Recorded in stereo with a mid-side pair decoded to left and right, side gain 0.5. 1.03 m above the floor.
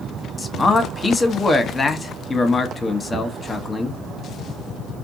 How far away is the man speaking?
About 0.8 m.